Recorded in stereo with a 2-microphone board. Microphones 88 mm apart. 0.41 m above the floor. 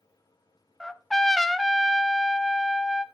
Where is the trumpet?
5° left (ahead or behind), 0.8 m.